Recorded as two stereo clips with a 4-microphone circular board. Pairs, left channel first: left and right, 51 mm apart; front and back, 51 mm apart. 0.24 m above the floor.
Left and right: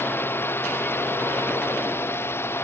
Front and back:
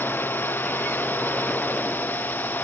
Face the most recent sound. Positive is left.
turn(degrees=55)